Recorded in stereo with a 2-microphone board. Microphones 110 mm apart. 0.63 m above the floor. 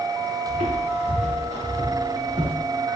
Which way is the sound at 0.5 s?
85° right.